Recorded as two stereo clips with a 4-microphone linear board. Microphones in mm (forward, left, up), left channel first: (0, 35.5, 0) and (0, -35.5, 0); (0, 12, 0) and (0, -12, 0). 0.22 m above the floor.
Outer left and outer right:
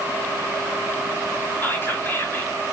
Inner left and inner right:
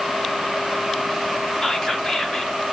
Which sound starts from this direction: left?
Whispering, at 1.6 s.